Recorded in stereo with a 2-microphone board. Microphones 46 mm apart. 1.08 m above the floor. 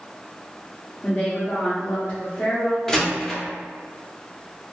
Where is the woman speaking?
40° left (ahead or behind), 0.8 m.